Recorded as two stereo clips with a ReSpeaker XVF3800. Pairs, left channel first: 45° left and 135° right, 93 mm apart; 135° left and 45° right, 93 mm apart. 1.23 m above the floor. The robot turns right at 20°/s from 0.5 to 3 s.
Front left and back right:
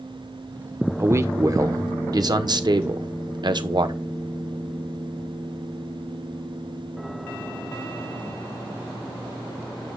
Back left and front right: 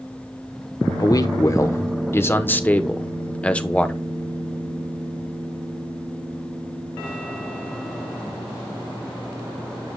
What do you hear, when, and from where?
1.0 s a man speaking: 170° left, 0.9 m; by 4.0 s 150° right, 0.9 m